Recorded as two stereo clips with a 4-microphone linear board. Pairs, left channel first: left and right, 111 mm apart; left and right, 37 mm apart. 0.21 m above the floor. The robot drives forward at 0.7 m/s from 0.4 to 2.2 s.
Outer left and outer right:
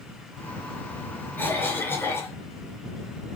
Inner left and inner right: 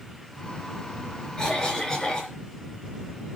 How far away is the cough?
About 3.5 m.